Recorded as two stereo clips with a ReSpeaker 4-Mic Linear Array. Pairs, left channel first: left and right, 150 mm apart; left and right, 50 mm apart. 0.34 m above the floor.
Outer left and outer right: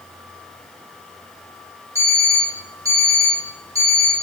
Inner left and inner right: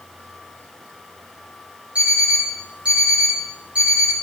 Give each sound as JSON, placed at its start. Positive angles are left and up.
{"t": 1.9, "sound": "an alarm clock", "side_deg": -20, "distance_m": 3.5}